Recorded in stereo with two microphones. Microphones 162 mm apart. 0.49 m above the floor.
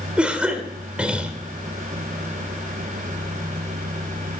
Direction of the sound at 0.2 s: 5° right (ahead or behind).